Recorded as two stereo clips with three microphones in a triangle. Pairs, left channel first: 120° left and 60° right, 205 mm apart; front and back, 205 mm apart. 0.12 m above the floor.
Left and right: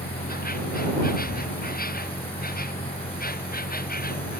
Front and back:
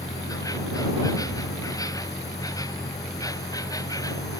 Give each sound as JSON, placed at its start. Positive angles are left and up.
{"t": 0.0, "sound": "an insect", "azimuth_deg": 75}